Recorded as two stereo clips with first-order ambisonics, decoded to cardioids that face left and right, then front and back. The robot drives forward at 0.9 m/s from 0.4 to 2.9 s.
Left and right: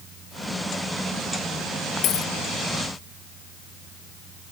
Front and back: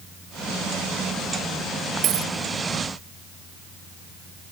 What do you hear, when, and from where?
2.0 s a dropped coin: 135° left; by 2.3 s 140° left